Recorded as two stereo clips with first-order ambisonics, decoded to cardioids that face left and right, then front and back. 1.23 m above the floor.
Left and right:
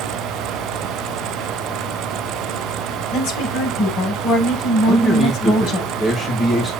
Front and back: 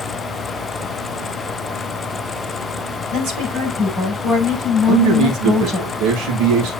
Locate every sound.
3.1 s a woman speaking: 125° left, 7 m
4.9 s a man speaking: 165° left, 1.8 m